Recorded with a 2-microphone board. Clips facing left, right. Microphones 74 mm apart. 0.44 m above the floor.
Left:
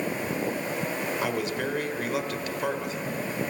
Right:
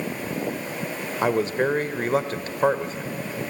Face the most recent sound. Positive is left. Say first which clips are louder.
# right 11 dB
turn(degrees=-35)  # may be behind; listen again after turning